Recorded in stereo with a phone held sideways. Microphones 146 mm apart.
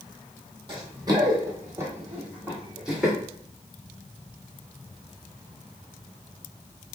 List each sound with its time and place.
0.7 s running footsteps: 35° right (ahead or behind), 1.8 m; by 3.1 s centre (ahead or behind), 2.5 m